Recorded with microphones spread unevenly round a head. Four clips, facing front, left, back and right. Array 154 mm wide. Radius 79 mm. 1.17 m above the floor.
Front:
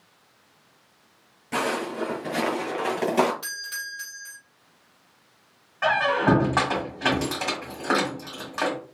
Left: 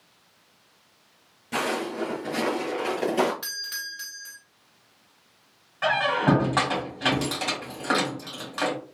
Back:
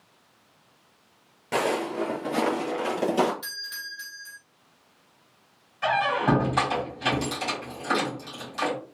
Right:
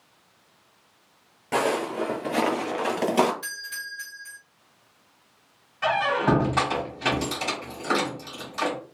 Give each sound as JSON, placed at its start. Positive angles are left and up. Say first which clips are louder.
{"t": 1.5, "sound": "footsteps", "louder": "right 3 dB, back 1 dB", "azimuth_deg": -135, "distance_m": 1.3}
{"t": 3.4, "sound": "a doorbell", "louder": "right 2 dB, front 4 dB", "azimuth_deg": 70, "distance_m": 2.0}
{"t": 5.8, "sound": "a squeak", "louder": "even, front 2 dB", "azimuth_deg": 30, "distance_m": 1.6}